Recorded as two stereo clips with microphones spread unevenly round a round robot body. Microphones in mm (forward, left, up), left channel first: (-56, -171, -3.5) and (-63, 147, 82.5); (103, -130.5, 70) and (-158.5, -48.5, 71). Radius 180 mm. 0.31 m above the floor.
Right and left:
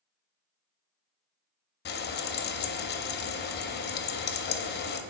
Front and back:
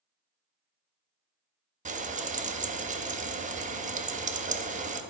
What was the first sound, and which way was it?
Frying, 135° right.